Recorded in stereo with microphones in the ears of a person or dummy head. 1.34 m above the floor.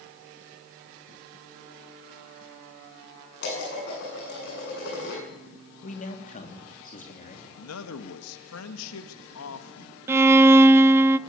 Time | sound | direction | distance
3.4 | dishes clattering | 50° left (ahead or behind) | 8 m
5.8 | a man speaking | 35° left (ahead or behind) | 3 m
7.6 | a man speaking | 85° left | 1.4 m
10.1 | a violin | 10° right (ahead or behind) | 0.5 m